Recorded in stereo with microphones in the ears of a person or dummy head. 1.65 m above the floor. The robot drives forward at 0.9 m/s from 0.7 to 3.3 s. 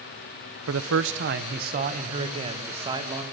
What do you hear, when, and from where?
0.7 s a man speaking: 75° right (ahead or behind), 1.2 m; by 3.2 s 25° right (ahead or behind), 3 m